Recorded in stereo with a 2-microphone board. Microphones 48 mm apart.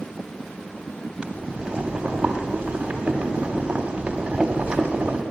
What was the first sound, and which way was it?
Boiling, 20° right (ahead or behind).